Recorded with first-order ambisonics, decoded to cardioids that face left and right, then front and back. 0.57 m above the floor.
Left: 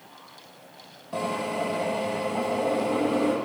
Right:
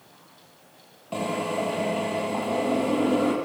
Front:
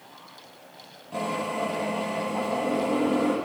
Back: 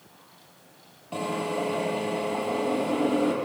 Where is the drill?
110° right, 8.5 m.